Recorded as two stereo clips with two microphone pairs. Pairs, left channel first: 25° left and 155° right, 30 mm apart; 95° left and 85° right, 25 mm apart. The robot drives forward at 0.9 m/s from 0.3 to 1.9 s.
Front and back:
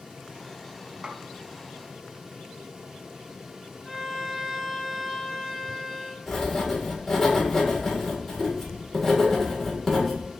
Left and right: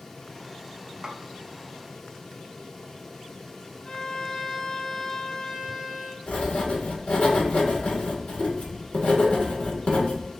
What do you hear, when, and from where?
1.0 s a snare drum: 135° right, 0.7 m; by 1.2 s 145° right, 0.7 m
3.9 s a violin: 130° left, 1.1 m
6.3 s writing: 105° left, 1.5 m